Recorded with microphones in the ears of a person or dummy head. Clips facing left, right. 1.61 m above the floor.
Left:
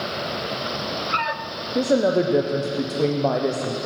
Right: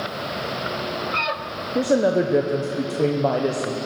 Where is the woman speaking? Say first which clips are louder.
Even; centre (ahead or behind), 0.7 m.